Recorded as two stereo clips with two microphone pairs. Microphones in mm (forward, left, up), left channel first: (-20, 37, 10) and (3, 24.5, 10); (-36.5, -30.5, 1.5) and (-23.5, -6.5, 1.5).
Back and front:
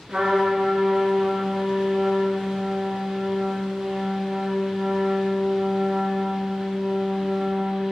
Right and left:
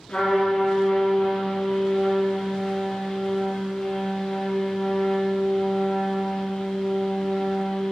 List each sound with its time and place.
0.1 s a trumpet: 50° right, 3 m